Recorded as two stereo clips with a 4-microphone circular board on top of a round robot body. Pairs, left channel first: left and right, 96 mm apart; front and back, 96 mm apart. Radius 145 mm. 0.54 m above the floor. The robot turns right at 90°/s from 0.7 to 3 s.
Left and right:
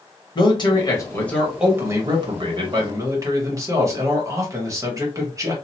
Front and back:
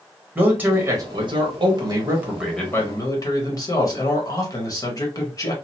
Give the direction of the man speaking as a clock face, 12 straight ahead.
8 o'clock.